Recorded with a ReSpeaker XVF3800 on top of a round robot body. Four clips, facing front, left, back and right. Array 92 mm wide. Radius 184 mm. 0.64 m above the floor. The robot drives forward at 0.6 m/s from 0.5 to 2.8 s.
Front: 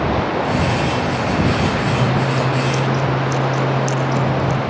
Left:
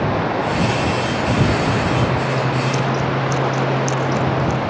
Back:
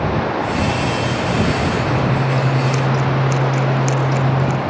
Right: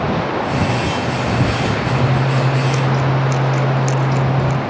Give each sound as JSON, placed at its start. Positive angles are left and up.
{"t": 1.9, "sound": "scissors", "azimuth_deg": -100, "distance_m": 0.7}